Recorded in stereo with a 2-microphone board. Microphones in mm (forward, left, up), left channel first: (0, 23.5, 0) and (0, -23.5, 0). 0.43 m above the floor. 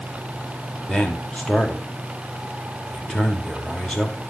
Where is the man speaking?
20° left (ahead or behind), 1.7 m.